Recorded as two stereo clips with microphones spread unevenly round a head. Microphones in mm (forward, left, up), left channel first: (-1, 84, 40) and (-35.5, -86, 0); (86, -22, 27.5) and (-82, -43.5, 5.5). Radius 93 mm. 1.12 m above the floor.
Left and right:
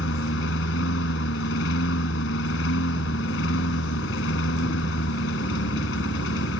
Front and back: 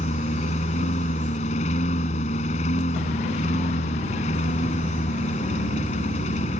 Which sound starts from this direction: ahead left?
A lawn mower, at 0.0 s.